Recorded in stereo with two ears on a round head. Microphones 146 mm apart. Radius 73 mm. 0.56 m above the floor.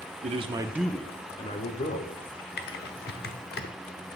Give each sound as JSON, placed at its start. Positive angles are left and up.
{"t": 0.2, "sound": "a man speaking", "side_deg": -45, "distance_m": 1.1}
{"t": 2.6, "sound": "typing on a keyboard", "side_deg": 65, "distance_m": 1.1}